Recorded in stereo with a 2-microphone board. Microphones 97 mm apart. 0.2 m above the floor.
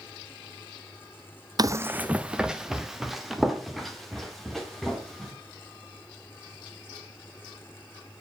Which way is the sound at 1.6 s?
45° right (ahead or behind).